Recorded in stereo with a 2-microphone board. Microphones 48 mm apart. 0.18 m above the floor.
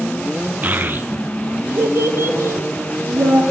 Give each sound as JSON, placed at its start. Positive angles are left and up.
{"t": 0.6, "sound": "a child speaking", "side_deg": -35, "distance_m": 1.2}